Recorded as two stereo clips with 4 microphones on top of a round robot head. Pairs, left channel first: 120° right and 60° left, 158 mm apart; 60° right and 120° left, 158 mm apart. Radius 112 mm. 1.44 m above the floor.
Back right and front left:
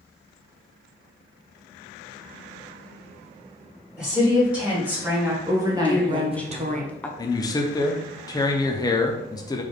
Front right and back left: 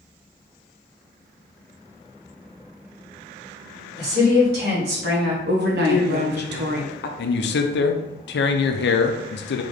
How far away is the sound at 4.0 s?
About 2.5 m.